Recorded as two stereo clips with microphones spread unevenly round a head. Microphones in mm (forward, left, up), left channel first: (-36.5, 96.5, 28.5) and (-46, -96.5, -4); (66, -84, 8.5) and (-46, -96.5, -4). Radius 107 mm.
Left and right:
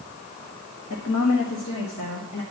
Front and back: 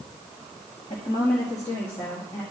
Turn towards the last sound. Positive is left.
turn(degrees=85)